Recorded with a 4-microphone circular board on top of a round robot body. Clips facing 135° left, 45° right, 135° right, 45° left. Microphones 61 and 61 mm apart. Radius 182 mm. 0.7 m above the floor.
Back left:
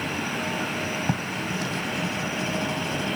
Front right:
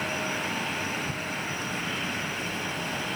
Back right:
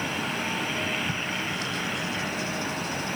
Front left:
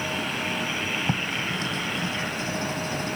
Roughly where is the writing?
Left.